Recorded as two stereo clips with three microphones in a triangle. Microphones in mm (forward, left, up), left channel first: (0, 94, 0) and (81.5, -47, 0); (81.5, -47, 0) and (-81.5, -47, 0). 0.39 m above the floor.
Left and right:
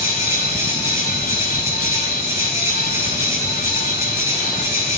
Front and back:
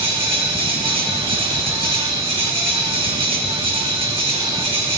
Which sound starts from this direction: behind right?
An insect, at 0.0 s.